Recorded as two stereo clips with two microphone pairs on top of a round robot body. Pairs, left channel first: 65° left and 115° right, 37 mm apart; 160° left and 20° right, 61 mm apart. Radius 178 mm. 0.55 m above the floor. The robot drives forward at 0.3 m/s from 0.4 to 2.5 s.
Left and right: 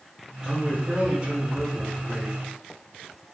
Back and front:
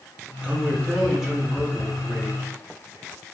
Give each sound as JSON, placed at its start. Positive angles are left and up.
{"t": 0.4, "sound": "a man speaking", "azimuth_deg": -100, "distance_m": 1.3}